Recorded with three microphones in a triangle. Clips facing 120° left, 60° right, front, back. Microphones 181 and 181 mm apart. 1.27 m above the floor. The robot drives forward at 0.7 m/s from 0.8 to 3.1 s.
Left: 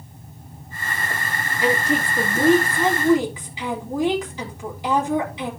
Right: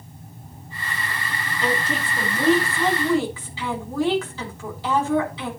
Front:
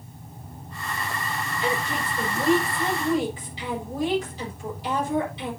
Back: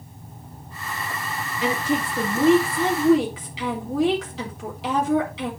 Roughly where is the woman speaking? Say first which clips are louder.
Left 5 dB, back 5 dB; behind.